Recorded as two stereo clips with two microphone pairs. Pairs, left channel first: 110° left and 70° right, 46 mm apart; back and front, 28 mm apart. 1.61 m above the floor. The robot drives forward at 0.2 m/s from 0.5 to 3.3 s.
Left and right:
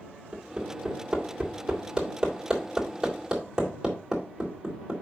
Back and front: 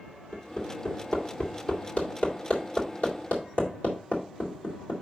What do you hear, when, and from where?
0.3 s hammering: 145° right, 2.5 m; by 4.9 s 150° right, 3 m